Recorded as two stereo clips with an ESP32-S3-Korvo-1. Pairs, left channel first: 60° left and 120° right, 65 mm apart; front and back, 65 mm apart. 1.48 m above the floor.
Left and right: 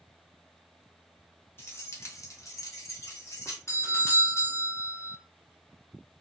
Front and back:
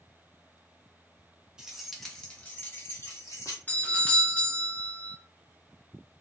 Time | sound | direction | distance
1.6 | keys jangling | 100° left | 1.0 m
3.7 | a doorbell | 55° left | 0.9 m